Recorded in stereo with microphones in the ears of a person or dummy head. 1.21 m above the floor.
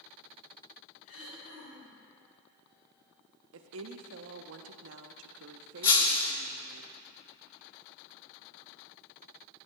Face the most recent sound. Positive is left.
turn(degrees=25)  # may be behind; listen again after turning